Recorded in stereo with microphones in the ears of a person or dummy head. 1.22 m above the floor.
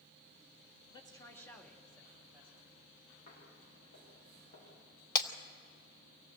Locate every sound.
0.9 s a man speaking: 25° left (ahead or behind), 2 m; by 2.7 s 10° right (ahead or behind), 3 m
3.3 s footsteps: 50° left (ahead or behind), 8 m; by 4.7 s 55° left (ahead or behind), 9 m
5.2 s breaking glass: 25° left (ahead or behind), 1.2 m